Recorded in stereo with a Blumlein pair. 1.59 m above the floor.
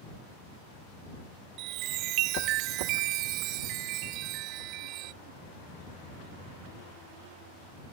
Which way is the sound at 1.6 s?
40° right.